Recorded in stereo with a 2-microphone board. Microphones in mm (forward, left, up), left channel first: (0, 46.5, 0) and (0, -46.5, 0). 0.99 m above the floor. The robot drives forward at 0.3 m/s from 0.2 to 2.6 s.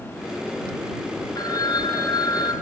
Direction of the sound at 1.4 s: 40° left (ahead or behind).